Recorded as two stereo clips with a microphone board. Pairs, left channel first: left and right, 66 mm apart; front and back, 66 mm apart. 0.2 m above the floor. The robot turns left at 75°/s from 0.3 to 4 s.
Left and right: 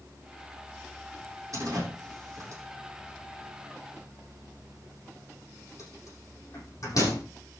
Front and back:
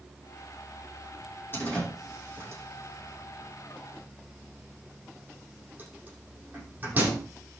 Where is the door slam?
60° right, 7 m; by 7.2 s 115° left, 7 m.